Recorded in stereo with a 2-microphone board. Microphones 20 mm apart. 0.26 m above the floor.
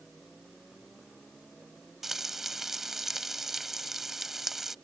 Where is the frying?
15° right (ahead or behind).